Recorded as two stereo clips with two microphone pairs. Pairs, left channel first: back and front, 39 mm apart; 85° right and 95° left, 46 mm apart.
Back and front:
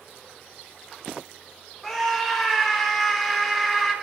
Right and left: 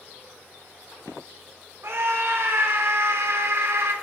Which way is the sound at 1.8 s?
90° left.